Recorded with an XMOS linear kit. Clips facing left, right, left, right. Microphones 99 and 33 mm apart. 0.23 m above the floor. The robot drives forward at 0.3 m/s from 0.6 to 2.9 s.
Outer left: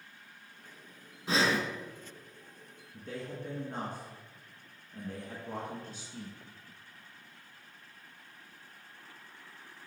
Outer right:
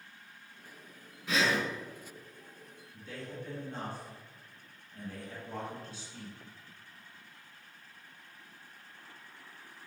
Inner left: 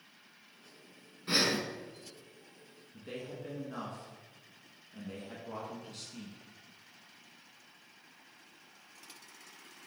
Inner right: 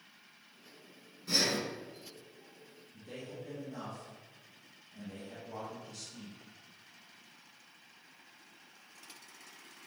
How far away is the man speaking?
About 2.5 m.